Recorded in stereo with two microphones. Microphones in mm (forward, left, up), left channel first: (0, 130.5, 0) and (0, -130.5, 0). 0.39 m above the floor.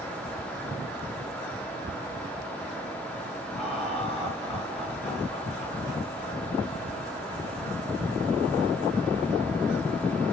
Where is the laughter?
20° left (ahead or behind), 6.5 m.